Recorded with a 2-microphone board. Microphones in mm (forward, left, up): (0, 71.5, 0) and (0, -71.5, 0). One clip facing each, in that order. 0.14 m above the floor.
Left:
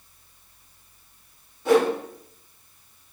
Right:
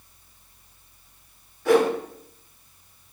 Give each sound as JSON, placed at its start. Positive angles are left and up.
{"t": 1.6, "sound": "a whoosh", "side_deg": 20, "distance_m": 1.6}